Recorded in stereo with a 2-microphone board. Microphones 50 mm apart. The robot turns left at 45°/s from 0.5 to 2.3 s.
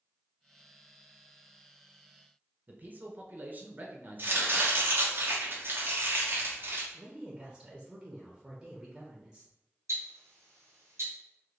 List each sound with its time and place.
2.7 s a man speaking: 35° right (ahead or behind), 0.5 m
4.2 s chopping: 45° right (ahead or behind), 0.8 m
6.9 s a woman speaking: 10° right (ahead or behind), 0.6 m
9.9 s ticking: 70° right (ahead or behind), 1.1 m